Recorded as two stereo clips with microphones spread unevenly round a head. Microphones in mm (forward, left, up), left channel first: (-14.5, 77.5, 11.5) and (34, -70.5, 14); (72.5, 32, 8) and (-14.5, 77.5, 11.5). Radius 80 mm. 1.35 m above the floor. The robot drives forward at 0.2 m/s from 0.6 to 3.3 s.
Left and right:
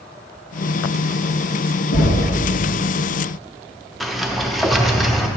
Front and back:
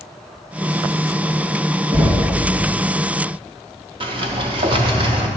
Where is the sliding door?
160° right, 0.6 m.